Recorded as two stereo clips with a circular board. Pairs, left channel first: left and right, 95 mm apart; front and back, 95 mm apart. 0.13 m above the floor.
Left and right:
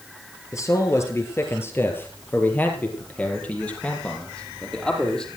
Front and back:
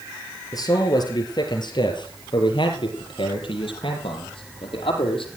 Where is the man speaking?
40° left, 3 m; by 5.3 s 5° left, 5 m.